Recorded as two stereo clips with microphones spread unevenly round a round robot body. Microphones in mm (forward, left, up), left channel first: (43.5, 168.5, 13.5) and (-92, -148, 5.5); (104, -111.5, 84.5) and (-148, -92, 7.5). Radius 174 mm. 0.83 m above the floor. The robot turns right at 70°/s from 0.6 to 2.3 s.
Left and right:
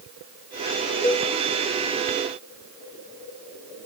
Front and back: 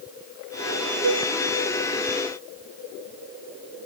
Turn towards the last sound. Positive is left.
turn(degrees=-130)